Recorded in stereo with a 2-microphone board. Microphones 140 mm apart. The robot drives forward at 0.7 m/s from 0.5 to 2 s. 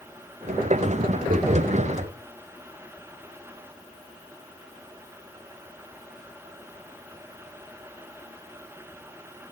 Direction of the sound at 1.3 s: 80° right.